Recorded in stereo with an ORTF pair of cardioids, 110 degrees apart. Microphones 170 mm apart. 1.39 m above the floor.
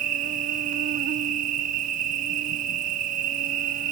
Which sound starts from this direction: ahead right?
An insect, at 0.0 s.